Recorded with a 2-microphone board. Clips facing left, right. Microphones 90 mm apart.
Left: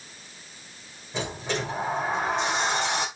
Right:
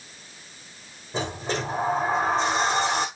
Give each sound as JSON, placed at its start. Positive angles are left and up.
{"t": 1.1, "sound": "a sliding door", "side_deg": -40, "distance_m": 8.0}